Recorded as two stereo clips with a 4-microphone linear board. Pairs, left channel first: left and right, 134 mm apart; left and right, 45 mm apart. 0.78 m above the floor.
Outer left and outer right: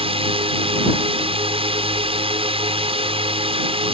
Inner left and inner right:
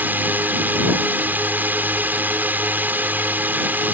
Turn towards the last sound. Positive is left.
turn(degrees=-45)  # may be behind; listen again after turning